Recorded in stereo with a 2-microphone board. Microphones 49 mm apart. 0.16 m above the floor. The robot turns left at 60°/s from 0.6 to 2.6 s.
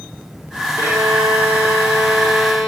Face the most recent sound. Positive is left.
turn(degrees=170)